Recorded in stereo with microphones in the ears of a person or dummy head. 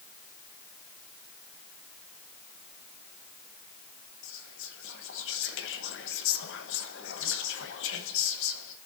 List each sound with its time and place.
4.2 s whispering: 80° left, 1.1 m